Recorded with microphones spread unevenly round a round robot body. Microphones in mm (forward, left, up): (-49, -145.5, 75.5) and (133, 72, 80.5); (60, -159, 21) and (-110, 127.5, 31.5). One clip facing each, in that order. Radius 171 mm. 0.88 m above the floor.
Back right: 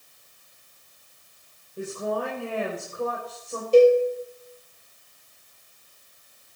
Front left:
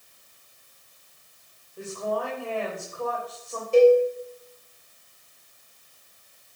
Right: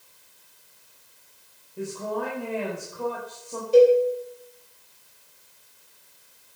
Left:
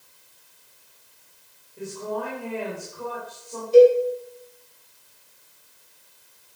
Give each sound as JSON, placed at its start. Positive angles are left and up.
{"t": 1.8, "sound": "a woman speaking", "azimuth_deg": -70, "distance_m": 4.5}
{"t": 3.7, "sound": "a cowbell", "azimuth_deg": -80, "distance_m": 5.0}